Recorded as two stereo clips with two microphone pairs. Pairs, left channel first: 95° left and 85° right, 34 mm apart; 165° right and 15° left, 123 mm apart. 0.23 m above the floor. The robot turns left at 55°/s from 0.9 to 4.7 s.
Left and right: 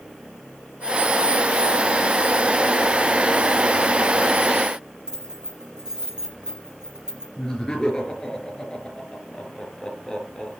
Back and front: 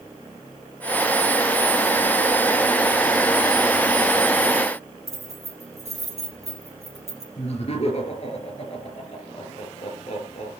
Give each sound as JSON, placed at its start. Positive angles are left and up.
{"t": 5.1, "sound": "keys jangling", "azimuth_deg": -15, "distance_m": 5.0}
{"t": 7.4, "sound": "laughter", "azimuth_deg": 165, "distance_m": 4.0}